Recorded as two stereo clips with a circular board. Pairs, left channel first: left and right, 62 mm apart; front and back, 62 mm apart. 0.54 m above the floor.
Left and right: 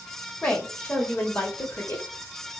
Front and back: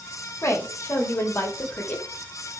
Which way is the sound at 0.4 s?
20° left.